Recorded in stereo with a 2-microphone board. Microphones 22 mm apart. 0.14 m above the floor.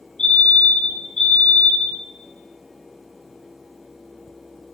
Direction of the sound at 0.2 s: 25° left (ahead or behind).